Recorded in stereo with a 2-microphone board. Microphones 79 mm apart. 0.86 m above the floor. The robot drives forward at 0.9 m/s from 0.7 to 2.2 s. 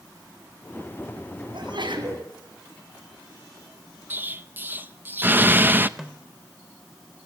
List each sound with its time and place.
1.5 s a sneeze: 65° right (ahead or behind), 7.5 m; by 2.2 s 70° right (ahead or behind), 7.5 m
4.1 s an explosion: 25° right (ahead or behind), 0.7 m
6.0 s a snare drum: 5° right (ahead or behind), 1.2 m